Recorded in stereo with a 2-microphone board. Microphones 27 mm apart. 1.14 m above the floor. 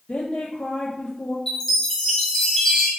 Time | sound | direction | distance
0.1 | a woman speaking | 60° left (ahead or behind) | 0.6 m
1.5 | a chime | 20° left (ahead or behind) | 1.1 m